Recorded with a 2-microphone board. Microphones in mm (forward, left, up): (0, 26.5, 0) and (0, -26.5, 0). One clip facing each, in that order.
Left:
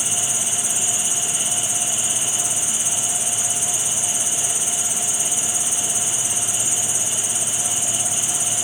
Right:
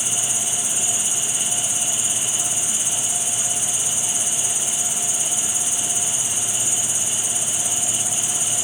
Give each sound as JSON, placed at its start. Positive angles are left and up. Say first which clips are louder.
{"t": 0.0, "sound": "an insect", "louder": "left 1 dB", "side_deg": 80, "distance_m": 3.5}